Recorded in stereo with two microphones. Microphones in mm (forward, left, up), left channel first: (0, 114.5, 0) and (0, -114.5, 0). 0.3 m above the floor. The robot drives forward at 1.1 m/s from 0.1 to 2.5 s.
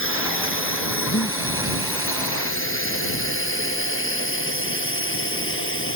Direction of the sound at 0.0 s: 70° left (ahead or behind).